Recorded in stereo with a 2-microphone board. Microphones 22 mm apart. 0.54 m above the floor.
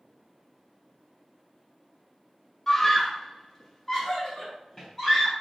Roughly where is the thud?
No thud in this recording.